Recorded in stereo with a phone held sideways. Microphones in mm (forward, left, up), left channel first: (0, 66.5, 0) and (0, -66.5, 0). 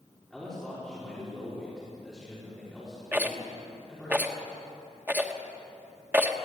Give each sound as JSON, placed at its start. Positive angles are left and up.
{"t": 0.3, "sound": "a man speaking", "side_deg": 0, "distance_m": 5.5}
{"t": 3.1, "sound": "a rattle", "side_deg": -15, "distance_m": 1.3}